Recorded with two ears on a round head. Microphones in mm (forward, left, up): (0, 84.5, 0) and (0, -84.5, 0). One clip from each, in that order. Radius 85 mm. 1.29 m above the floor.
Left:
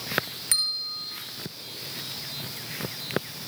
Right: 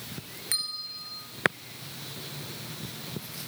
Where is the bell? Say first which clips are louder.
Left 5 dB; 20° left (ahead or behind), 3 m.